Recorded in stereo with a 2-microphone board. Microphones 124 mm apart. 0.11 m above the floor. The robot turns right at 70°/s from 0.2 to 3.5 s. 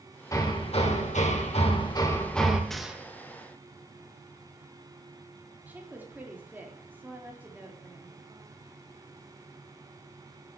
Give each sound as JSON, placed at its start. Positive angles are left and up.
{"t": 0.3, "sound": "hammering", "azimuth_deg": 30, "distance_m": 2.5}
{"t": 2.7, "sound": "a gunshot", "side_deg": 5, "distance_m": 2.0}
{"t": 5.7, "sound": "a woman speaking", "side_deg": -15, "distance_m": 4.0}